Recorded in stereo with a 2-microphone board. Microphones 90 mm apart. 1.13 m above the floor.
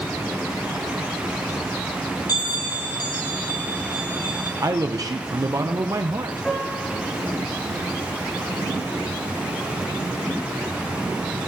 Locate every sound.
2.3 s a bell: 45° left (ahead or behind), 2.5 m
4.6 s a man speaking: 40° right (ahead or behind), 0.8 m
6.4 s a piano: 10° left (ahead or behind), 6.5 m